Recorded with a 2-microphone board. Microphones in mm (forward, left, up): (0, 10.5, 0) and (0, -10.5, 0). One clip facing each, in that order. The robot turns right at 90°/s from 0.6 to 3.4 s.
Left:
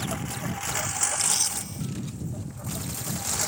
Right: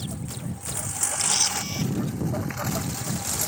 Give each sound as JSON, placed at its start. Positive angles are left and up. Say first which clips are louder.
{"t": 0.0, "sound": "a lawn mower", "louder": "left 3 dB", "side_deg": 50}
{"t": 1.2, "sound": "a camera shutter", "louder": "right 3 dB", "azimuth_deg": -175}